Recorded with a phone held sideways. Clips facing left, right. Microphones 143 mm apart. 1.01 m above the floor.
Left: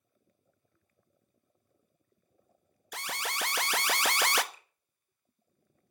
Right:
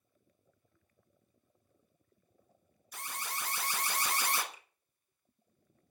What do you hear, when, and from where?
2.9 s an alarm: 75° left (ahead or behind), 1.0 m
4.5 s a finger snap: 5° right (ahead or behind), 3 m